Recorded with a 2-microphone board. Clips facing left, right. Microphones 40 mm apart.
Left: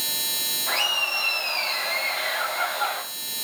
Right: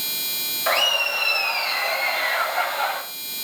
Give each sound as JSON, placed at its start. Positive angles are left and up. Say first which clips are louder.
{"t": 0.7, "sound": "laughter", "louder": "right 4 dB", "side_deg": -80, "distance_m": 4.0}